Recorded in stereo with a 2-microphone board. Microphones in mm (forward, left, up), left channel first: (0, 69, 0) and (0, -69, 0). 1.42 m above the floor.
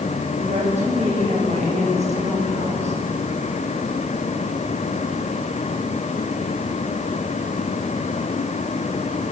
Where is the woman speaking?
55° right (ahead or behind), 8.5 m.